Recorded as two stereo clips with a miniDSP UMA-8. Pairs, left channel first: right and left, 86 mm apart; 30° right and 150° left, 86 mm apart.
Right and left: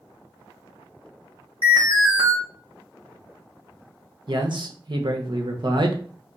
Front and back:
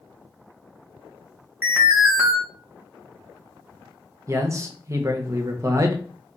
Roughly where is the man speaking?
Left.